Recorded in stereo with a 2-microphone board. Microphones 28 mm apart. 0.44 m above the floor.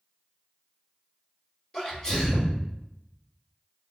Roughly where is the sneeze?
Left.